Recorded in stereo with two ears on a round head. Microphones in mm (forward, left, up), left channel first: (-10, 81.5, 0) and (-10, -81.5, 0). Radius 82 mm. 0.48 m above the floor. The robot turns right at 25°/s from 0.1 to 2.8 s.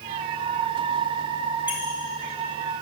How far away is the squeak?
About 3 m.